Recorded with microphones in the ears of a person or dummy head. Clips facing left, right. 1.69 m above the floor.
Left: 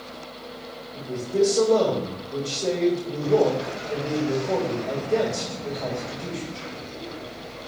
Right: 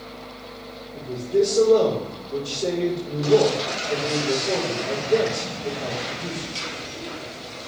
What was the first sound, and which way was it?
A man speaking, 25° right (ahead or behind).